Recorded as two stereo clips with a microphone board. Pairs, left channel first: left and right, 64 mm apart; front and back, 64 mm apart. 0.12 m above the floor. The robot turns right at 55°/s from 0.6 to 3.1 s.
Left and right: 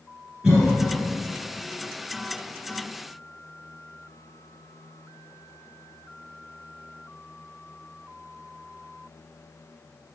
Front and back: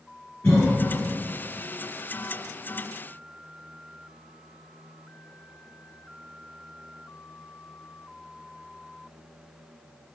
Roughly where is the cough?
Ahead right.